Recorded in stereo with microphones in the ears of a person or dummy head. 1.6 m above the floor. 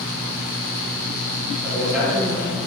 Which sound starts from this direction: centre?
A man speaking, at 1.6 s.